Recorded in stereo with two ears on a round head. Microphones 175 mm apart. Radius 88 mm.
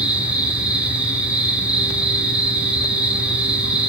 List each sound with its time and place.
0.0 s an insect: 5° right (ahead or behind), 5.5 m